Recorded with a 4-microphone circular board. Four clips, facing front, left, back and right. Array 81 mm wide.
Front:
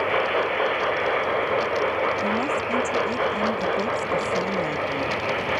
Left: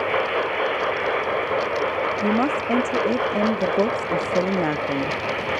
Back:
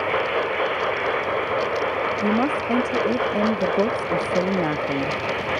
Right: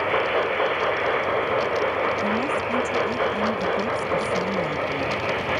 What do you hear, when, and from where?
2.2 s a woman speaking: 125° left